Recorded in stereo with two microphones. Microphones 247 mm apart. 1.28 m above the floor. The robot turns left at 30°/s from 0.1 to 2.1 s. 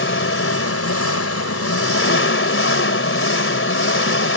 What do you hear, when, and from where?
0.0 s an engine running: 120° left; by 4.4 s 60° left